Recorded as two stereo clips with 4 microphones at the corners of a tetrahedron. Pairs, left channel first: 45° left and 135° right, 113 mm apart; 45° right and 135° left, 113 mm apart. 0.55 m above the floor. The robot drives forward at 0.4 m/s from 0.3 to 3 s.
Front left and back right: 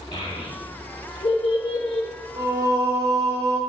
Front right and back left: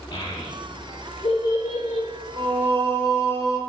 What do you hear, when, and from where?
0.1 s a child speaking: straight ahead, 1.3 m; by 2.1 s 5° left, 0.6 m
2.4 s singing: 165° left, 0.9 m; by 3.6 s 170° left, 1.2 m